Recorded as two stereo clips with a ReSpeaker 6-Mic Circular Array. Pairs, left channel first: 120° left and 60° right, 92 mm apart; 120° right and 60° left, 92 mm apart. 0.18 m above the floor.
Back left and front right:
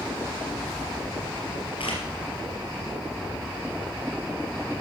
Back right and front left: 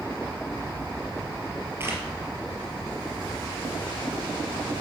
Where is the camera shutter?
120° left, 3.5 m.